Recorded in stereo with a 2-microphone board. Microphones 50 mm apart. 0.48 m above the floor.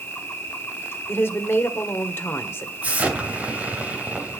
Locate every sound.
0.0 s an insect: 45° left (ahead or behind), 2.5 m
1.1 s a woman speaking: 50° left (ahead or behind), 1.7 m
2.8 s an explosion: 30° right (ahead or behind), 2.5 m